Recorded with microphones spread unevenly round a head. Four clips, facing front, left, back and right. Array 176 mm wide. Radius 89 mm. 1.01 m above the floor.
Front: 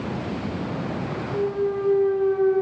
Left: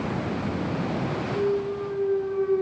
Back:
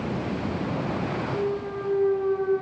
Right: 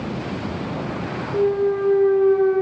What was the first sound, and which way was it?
A clunk, 50° right.